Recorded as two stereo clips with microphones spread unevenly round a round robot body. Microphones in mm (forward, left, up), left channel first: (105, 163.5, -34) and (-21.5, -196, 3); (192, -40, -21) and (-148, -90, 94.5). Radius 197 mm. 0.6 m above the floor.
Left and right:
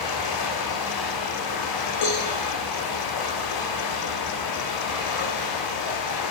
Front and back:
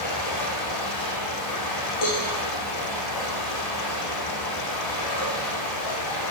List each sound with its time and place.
0.0 s running water: 40° left, 8 m
2.0 s a cowbell: 40° left, 8 m